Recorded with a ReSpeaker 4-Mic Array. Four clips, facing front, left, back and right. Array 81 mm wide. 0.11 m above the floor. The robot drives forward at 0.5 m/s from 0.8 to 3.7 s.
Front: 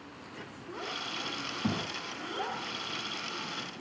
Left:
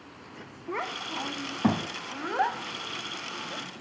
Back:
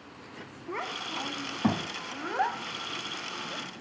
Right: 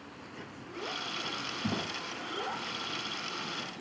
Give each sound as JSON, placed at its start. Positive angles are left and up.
{"t": 0.7, "sound": "a child speaking", "azimuth_deg": 120, "distance_m": 6.0}